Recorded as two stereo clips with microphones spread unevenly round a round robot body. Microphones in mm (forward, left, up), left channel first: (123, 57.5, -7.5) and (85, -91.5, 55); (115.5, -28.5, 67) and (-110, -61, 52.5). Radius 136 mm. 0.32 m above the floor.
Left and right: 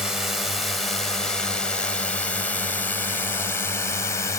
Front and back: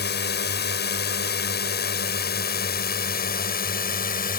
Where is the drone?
10° left; by 4.4 s 45° left.